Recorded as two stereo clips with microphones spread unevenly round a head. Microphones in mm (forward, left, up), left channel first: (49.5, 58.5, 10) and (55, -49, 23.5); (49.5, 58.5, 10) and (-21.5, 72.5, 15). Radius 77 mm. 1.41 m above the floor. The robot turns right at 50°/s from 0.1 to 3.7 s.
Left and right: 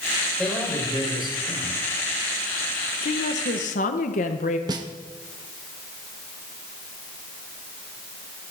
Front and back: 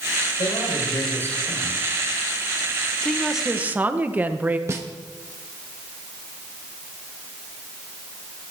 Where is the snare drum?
140° right, 0.6 m.